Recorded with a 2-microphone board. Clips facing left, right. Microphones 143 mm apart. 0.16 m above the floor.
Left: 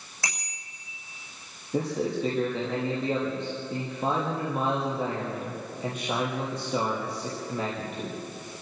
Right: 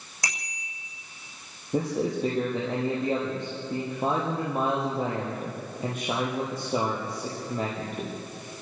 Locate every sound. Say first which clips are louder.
0.2 s a bicycle bell: right 1 dB; 15° right (ahead or behind), 7 m
1.7 s a man speaking: right 1 dB; 50° right (ahead or behind), 6 m